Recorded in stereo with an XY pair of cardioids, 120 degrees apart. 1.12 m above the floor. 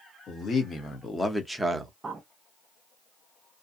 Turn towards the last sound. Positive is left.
turn(degrees=-25)